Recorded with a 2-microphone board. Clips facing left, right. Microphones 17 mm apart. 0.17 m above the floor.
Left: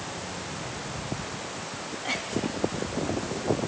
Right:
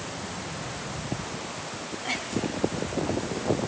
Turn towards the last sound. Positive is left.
No sound to turn to.